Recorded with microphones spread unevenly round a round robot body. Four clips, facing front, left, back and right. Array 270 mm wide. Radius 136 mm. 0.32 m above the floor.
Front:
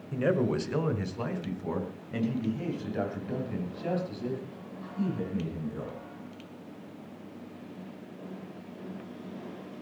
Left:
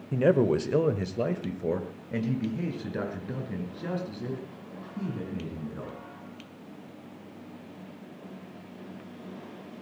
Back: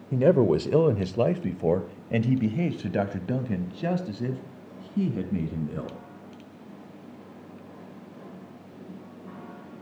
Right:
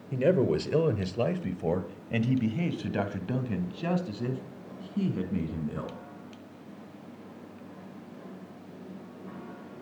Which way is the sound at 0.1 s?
170° left.